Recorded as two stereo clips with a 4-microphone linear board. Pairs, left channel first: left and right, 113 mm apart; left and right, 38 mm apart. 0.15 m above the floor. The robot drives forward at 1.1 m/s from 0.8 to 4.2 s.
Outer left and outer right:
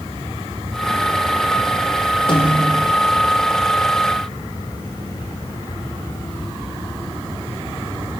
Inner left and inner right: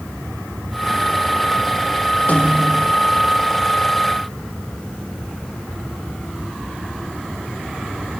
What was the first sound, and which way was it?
A snare drum, 50° left (ahead or behind).